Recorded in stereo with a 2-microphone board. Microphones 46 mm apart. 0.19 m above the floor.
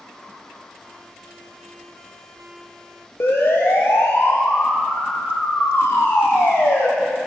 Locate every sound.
3.2 s a siren: 60° left (ahead or behind), 5 m; by 6.9 s 80° left, 6.5 m